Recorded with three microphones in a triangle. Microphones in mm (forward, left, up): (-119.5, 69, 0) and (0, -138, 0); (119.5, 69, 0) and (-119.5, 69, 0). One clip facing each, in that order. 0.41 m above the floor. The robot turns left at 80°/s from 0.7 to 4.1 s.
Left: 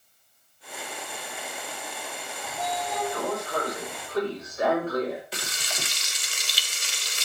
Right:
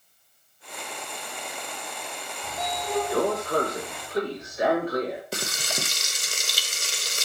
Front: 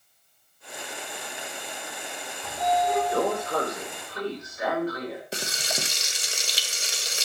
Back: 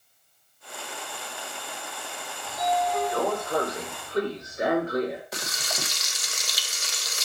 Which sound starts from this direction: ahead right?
Frying, at 5.3 s.